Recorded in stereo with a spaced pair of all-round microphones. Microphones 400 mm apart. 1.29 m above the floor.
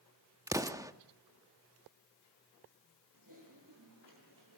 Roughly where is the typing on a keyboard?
Right.